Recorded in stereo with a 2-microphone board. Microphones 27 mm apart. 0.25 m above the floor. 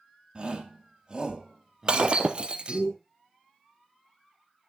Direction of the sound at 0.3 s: 35° right (ahead or behind).